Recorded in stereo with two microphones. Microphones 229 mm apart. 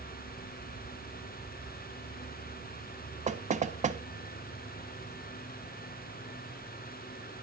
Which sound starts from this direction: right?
Knocking, at 3.3 s.